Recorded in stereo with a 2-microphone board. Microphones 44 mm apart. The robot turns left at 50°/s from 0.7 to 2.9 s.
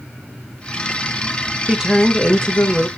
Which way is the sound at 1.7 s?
165° right.